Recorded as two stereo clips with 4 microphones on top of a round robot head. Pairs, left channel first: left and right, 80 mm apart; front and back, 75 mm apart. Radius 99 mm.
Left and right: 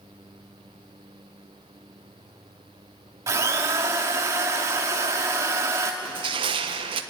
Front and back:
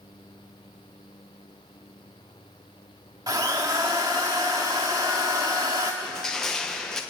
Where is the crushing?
85° right, 1.2 m.